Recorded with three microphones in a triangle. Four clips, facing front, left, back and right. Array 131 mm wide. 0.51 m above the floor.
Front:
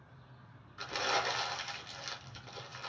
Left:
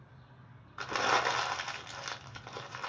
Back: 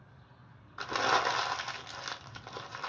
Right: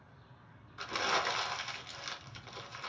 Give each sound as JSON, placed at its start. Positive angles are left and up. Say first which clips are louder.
{"t": 0.8, "sound": "crumpling", "louder": "left 4 dB, back 5 dB", "azimuth_deg": 150, "distance_m": 0.5}